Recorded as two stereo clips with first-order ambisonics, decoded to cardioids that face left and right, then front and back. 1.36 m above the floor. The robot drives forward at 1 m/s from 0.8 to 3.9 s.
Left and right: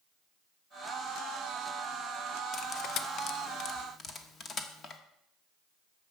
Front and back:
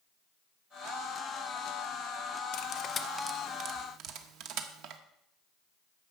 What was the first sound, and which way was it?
Cutlery clinking, 35° left.